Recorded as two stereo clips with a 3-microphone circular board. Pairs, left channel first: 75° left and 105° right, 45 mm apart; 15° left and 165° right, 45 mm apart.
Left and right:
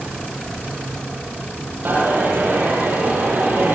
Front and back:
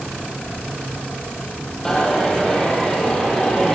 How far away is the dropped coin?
About 4 m.